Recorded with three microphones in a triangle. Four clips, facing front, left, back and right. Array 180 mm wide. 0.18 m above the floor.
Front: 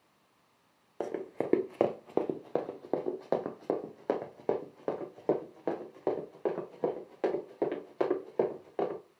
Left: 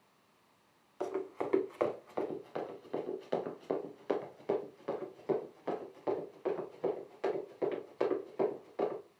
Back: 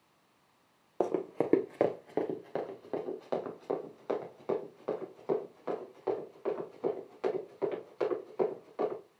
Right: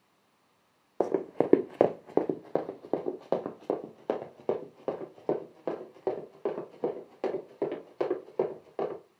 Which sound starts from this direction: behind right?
Running footsteps, at 1.0 s.